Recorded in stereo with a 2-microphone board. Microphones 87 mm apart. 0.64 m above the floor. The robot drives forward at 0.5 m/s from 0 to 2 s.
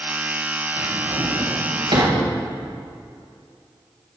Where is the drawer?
60° right (ahead or behind), 3.5 m; by 2.2 s 70° right (ahead or behind), 3.5 m.